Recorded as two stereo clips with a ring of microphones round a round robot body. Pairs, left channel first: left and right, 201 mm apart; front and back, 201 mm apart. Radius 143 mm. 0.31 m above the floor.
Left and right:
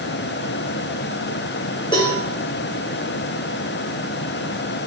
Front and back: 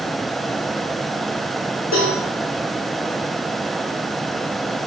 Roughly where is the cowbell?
Ahead.